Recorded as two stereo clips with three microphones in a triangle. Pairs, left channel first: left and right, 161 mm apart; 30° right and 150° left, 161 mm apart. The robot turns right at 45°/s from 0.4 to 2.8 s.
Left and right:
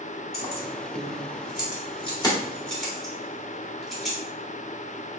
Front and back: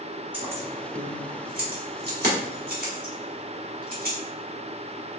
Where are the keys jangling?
70° left, 1.7 m; by 4.2 s straight behind, 1.7 m.